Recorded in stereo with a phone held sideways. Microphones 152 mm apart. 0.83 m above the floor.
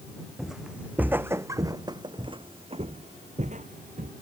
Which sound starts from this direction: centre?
Footsteps, at 0.4 s.